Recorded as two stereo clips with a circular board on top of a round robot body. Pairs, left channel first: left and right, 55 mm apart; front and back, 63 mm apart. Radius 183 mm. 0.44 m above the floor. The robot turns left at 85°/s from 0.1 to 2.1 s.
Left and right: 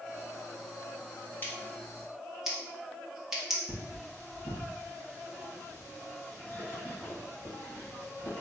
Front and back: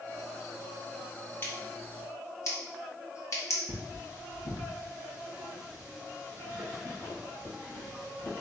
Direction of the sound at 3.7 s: 35° left.